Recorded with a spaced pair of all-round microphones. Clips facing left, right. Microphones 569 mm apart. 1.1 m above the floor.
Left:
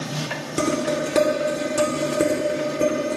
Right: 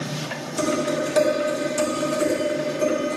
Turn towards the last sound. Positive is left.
turn(degrees=75)  # may be behind; listen again after turning